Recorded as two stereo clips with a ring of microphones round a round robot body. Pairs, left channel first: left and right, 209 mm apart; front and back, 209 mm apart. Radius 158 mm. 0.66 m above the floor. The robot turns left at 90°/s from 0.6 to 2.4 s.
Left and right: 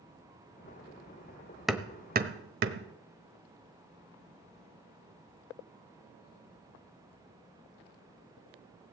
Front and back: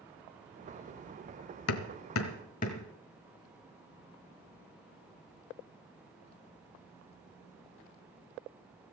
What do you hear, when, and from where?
1.7 s hammering: straight ahead, 1.1 m; by 2.9 s 65° right, 1.1 m